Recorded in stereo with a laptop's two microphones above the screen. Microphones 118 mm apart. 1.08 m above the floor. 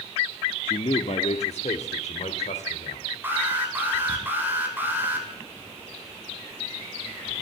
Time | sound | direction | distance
0.7 | a man speaking | 50° left (ahead or behind) | 1.7 m
3.2 | an alarm | 15° right (ahead or behind) | 7.5 m